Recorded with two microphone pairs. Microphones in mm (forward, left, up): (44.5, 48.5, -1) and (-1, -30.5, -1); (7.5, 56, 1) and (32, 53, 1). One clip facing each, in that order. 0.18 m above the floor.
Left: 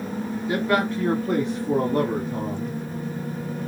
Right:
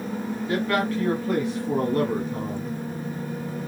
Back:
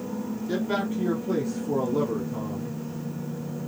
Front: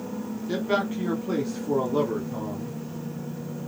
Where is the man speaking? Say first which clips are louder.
Left 2 dB, front 2 dB; 35° left, 1.1 m; by 2.8 s straight ahead, 2.5 m.